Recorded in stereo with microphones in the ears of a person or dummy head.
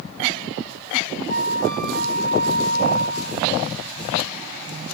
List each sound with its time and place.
1.3 s a flute: 65° right (ahead or behind), 1.6 m